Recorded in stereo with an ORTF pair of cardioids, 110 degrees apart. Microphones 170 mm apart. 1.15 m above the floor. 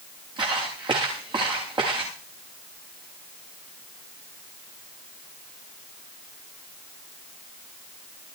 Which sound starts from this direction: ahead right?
Footsteps, at 0.4 s.